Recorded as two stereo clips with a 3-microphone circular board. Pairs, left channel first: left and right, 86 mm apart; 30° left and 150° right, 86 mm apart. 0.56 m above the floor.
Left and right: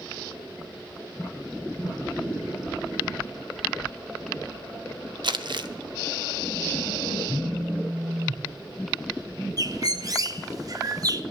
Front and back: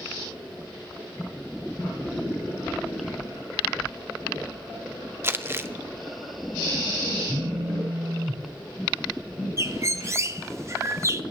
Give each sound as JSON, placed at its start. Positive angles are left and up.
{"t": 5.2, "sound": "crumpling", "azimuth_deg": -90, "distance_m": 0.7}
{"t": 7.3, "sound": "a phone buzzing", "azimuth_deg": -120, "distance_m": 1.0}
{"t": 9.6, "sound": "a bird", "azimuth_deg": -110, "distance_m": 0.6}